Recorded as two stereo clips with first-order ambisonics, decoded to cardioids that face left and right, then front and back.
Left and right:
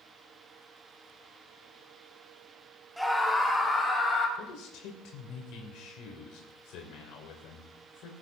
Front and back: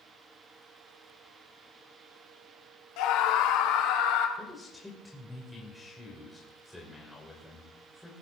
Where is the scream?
Straight ahead, 1.7 m; by 4.3 s 20° left, 3 m.